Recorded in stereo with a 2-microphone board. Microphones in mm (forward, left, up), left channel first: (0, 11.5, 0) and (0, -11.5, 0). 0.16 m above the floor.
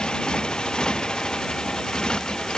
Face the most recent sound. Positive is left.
turn(degrees=35)  # may be behind; listen again after turning